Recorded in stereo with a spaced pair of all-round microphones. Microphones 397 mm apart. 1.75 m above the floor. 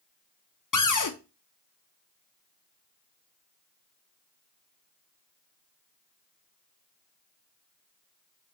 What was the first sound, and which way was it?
A cupboard door, 50° left (ahead or behind).